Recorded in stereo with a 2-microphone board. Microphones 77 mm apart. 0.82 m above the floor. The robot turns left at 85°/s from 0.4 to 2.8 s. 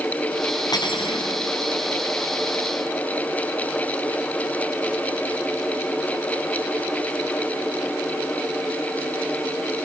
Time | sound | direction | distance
0.7 | cutlery clinking | 125° left | 4.5 m